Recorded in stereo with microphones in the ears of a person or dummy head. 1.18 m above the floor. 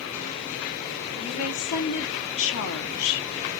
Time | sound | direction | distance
1.2 | a woman speaking | 70° left (ahead or behind) | 1.7 m